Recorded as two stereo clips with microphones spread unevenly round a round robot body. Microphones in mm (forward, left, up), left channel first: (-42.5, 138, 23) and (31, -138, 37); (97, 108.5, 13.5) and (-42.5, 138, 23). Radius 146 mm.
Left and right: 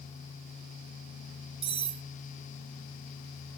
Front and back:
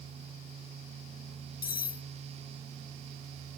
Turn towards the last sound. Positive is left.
turn(degrees=-5)